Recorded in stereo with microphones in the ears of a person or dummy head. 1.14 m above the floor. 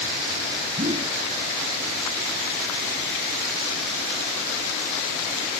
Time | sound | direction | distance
0.8 | a whoosh | 25° right (ahead or behind) | ?